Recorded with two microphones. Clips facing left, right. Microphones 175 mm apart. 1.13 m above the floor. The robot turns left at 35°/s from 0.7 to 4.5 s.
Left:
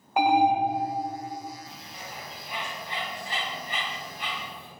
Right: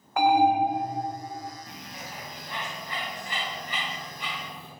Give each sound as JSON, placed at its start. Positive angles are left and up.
{"t": 0.2, "sound": "an alarm", "side_deg": 20, "distance_m": 1.3}
{"t": 1.7, "sound": "a bird", "side_deg": -20, "distance_m": 2.5}